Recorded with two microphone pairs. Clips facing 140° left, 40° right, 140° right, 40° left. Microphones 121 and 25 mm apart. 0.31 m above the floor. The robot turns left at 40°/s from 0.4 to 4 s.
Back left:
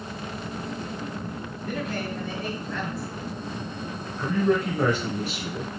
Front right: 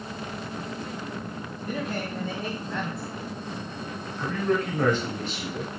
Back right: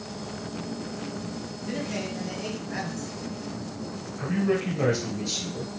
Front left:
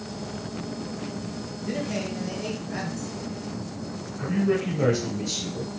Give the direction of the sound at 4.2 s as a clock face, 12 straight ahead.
5 o'clock.